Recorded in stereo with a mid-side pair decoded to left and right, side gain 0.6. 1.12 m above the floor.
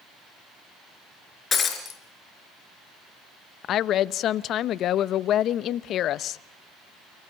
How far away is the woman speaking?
About 0.8 m.